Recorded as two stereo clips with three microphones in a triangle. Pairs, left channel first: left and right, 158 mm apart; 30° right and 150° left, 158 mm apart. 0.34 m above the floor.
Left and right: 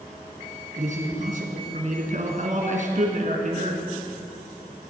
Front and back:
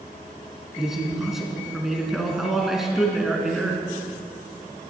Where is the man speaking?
120° right, 3 m.